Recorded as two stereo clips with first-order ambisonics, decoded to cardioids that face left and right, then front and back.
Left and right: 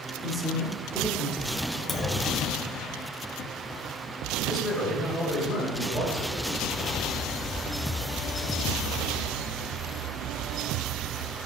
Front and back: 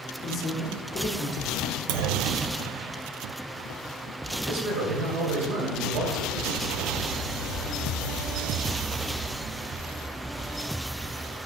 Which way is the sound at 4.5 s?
165° left.